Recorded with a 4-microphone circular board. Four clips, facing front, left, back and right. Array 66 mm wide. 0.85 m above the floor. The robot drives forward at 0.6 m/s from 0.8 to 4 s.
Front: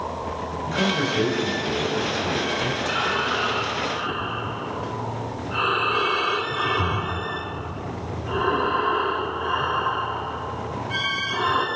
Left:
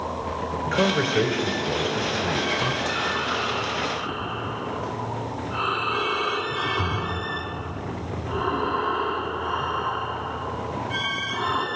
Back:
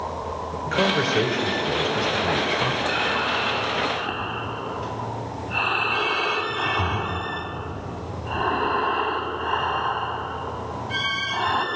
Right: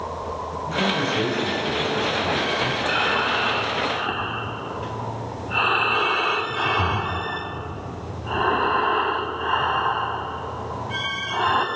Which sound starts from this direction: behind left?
A man speaking, at 0.7 s.